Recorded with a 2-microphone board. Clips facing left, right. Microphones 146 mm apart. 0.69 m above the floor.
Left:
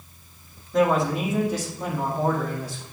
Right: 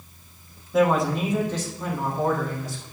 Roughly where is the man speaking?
Centre.